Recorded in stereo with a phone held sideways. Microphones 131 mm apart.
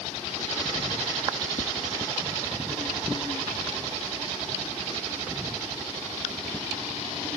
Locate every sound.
1.6 s tapping: 50° left (ahead or behind)